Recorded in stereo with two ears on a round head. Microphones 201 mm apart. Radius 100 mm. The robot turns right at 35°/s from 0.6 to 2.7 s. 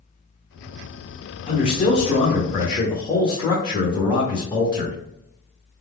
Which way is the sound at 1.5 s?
20° left (ahead or behind).